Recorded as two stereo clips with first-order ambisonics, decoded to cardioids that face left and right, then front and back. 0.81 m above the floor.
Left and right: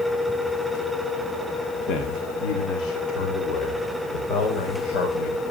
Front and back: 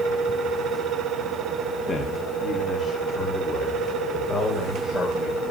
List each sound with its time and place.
1.9 s a man speaking: 65° left, 1.5 m; by 5.4 s 70° left, 4 m